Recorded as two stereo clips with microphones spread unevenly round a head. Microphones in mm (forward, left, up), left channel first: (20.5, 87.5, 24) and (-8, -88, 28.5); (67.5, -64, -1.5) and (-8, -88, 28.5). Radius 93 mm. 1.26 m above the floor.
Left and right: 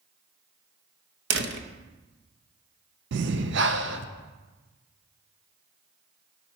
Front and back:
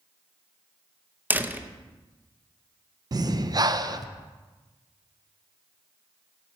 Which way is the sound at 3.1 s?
130° right.